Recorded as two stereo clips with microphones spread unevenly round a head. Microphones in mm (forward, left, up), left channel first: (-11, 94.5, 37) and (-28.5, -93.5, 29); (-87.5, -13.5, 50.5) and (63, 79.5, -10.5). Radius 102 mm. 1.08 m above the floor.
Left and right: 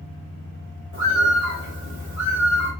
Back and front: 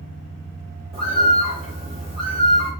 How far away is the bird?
About 1.8 m.